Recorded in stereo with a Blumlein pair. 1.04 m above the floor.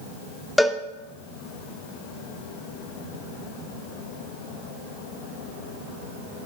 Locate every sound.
0.6 s a cowbell: 5° left, 0.6 m